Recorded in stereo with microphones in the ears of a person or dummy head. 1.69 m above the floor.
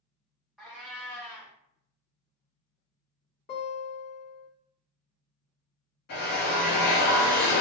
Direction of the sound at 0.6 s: Centre (ahead or behind).